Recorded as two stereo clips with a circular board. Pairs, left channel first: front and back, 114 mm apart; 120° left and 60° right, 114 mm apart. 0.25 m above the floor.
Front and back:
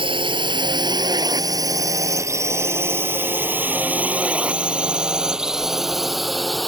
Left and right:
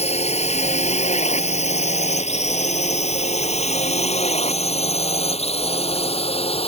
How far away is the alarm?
I don't hear an alarm.